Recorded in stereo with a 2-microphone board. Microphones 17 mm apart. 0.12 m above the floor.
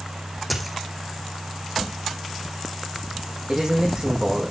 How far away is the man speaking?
About 6.5 m.